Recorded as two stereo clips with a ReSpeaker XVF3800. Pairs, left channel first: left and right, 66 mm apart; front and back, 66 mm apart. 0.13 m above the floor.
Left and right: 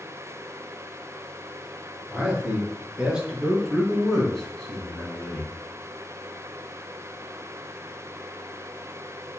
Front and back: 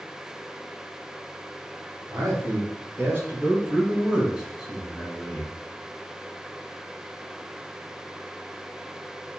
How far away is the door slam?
No door slam in this recording.